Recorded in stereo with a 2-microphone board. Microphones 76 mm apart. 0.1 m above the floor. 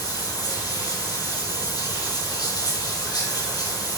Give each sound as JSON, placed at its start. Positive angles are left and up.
{"t": 0.0, "sound": "running water", "side_deg": 60, "distance_m": 3.0}